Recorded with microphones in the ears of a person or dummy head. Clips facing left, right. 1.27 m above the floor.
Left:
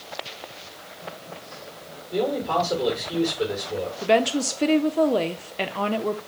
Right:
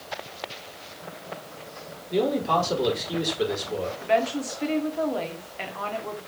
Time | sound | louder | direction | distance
2.1 | a man speaking | right 1 dB | 30° right (ahead or behind) | 4 m
4.0 | a woman speaking | left 4 dB | 50° left (ahead or behind) | 0.8 m